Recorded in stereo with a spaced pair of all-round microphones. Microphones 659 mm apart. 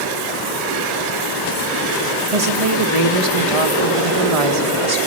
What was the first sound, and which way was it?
A woman speaking, 50° right (ahead or behind).